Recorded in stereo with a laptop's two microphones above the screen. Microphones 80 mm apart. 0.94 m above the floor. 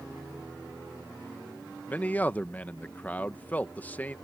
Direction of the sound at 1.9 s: 20° left (ahead or behind).